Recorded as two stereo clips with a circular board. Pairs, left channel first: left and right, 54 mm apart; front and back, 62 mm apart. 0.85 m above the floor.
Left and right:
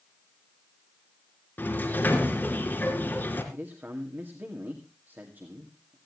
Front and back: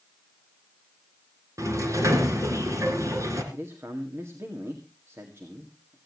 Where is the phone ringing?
No phone ringing in this recording.